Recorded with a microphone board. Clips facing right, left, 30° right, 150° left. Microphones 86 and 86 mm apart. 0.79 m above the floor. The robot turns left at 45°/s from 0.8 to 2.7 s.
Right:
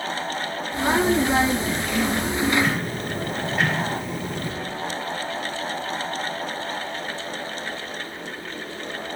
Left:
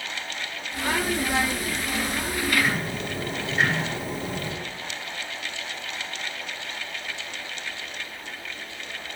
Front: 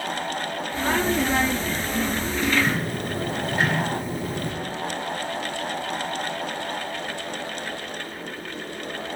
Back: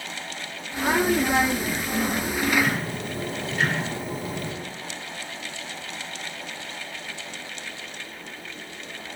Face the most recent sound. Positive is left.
turn(degrees=10)